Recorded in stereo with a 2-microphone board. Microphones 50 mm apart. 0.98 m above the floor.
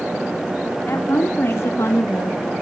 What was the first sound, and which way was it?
A woman speaking, 45° left (ahead or behind).